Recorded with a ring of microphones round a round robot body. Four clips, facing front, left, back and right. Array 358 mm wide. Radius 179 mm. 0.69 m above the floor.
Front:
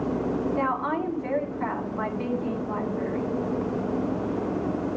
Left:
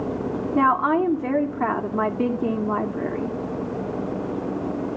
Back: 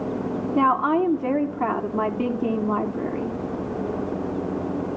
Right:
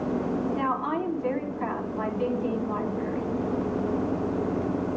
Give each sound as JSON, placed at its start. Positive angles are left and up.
{"t": 0.6, "sound": "a woman speaking", "azimuth_deg": 135, "distance_m": 1.8}